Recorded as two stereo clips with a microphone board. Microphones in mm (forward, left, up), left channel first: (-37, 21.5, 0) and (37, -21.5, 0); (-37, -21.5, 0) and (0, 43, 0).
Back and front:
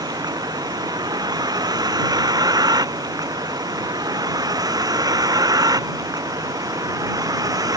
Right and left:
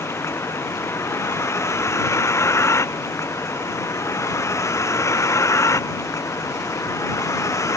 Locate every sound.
0.0 s a vehicle: 70° right; by 7.8 s 75° right